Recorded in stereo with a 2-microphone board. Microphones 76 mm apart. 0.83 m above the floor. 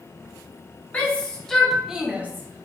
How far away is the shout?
About 1.2 m.